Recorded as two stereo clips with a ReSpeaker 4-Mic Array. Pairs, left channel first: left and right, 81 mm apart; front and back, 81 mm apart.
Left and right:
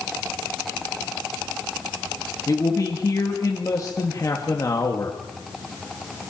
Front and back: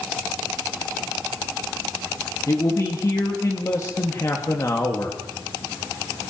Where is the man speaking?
50° left, 2 m.